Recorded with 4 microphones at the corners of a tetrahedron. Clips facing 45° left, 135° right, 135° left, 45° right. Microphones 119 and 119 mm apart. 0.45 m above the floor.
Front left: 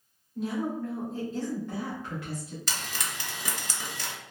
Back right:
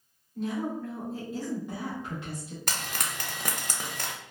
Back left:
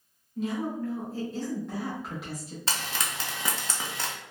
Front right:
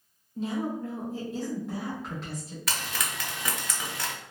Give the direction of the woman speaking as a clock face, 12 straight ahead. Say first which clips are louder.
Front left 1 dB, even; 1 o'clock.